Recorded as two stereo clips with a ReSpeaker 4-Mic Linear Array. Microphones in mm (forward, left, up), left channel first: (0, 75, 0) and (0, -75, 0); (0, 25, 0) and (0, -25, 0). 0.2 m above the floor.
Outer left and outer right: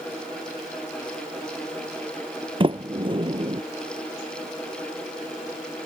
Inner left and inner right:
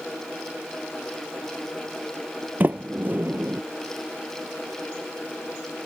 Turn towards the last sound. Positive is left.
turn(degrees=-35)  # may be behind; listen again after turning